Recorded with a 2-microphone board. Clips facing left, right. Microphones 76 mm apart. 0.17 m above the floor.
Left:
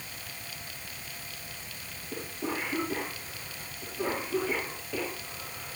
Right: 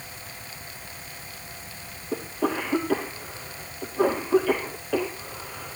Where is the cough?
70° right (ahead or behind), 5 m.